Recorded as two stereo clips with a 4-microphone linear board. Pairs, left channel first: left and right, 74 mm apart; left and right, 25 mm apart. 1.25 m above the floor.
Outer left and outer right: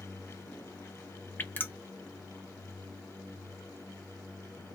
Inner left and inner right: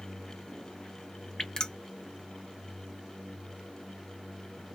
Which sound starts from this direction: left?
Dripping, at 1.4 s.